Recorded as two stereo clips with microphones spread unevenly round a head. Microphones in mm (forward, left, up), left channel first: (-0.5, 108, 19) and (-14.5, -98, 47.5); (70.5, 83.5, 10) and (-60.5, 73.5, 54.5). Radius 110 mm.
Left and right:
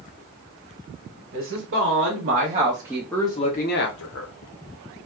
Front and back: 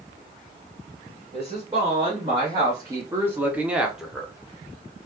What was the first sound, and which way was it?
A woman speaking, 110° right.